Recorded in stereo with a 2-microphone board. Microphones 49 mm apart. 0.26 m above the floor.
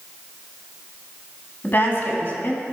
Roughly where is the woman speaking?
Left.